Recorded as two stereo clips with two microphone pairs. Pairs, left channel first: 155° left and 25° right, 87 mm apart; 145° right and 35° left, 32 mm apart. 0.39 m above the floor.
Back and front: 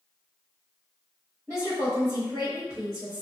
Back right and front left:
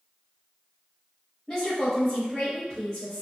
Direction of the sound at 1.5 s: 70° right.